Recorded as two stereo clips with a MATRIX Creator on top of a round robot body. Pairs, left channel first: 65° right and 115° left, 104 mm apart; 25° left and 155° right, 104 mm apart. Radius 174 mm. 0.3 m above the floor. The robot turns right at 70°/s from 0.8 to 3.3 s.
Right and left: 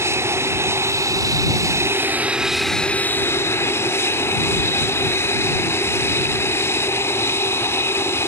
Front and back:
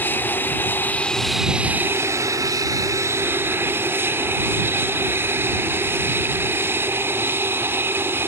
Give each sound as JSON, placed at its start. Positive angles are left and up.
{"t": 0.0, "sound": "an aircraft", "azimuth_deg": 75}